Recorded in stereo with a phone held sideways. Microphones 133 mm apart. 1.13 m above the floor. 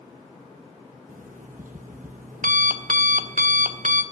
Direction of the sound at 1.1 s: 75° right (ahead or behind).